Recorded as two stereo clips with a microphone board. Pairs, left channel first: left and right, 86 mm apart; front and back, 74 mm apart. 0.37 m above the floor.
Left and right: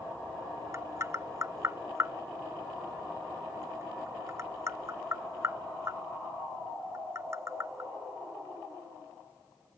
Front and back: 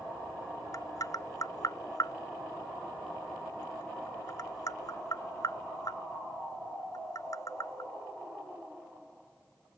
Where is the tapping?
35° right.